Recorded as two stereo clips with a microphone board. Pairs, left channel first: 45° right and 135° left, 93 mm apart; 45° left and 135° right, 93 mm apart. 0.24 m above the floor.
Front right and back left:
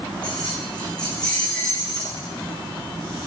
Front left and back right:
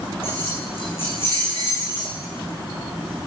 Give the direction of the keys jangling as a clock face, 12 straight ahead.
11 o'clock.